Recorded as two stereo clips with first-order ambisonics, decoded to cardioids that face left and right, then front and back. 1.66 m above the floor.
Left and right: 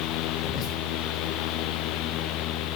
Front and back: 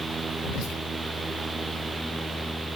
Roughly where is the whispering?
Ahead left.